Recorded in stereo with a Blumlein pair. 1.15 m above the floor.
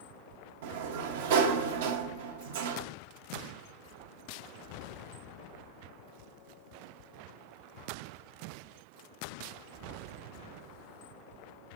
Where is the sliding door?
55° right, 0.8 m.